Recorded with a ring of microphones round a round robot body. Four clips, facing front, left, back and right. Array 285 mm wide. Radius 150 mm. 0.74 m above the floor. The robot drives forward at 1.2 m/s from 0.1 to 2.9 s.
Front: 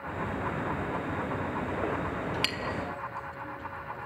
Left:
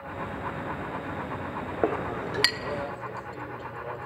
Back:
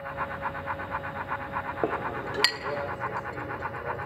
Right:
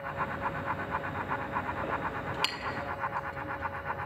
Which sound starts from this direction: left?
A clink, at 1.8 s.